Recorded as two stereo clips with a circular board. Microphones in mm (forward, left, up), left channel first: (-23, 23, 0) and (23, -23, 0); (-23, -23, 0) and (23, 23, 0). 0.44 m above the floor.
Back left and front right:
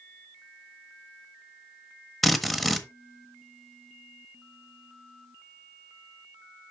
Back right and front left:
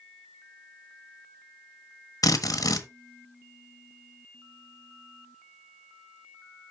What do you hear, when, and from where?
2.2 s a drill: 135° right, 1.2 m